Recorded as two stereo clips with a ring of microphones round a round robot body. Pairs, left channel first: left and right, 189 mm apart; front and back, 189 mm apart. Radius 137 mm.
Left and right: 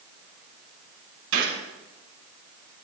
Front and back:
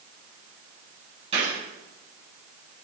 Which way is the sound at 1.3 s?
110° right.